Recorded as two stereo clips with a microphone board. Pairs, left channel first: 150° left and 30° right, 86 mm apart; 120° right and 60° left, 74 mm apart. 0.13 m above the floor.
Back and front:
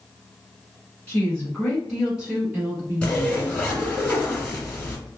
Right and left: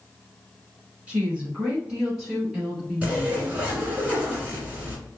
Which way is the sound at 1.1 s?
105° left.